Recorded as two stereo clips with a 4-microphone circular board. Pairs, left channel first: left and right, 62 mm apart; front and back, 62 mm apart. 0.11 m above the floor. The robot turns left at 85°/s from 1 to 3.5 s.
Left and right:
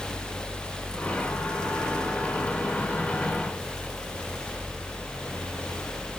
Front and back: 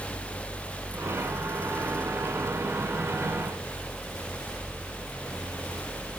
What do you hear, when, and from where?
Only background noise.